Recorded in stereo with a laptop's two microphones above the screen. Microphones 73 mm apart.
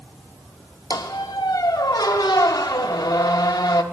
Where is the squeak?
65° left (ahead or behind), 0.7 m.